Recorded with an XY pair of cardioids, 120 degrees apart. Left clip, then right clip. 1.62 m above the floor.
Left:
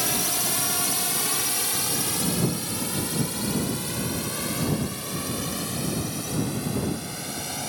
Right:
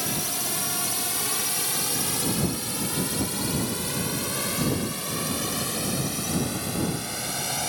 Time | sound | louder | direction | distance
0.0 | a drone | left 3 dB | 15° left | ?